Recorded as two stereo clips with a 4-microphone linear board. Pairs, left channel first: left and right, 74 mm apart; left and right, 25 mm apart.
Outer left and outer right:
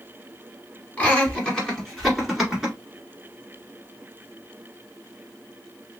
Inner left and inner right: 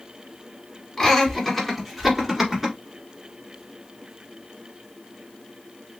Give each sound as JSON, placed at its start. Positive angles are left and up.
{"t": 1.0, "sound": "laughter", "side_deg": 25, "distance_m": 1.8}